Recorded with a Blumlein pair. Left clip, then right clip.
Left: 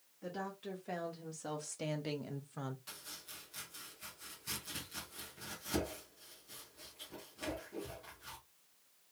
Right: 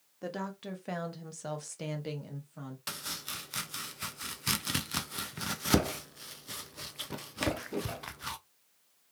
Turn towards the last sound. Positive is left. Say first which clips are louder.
# right 12 dB
turn(degrees=-40)